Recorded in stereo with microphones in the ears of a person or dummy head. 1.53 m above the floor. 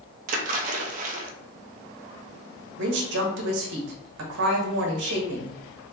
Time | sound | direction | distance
0.3 | a splash | 50° right (ahead or behind) | 0.9 m
2.8 | a woman speaking | 75° right (ahead or behind) | 1.4 m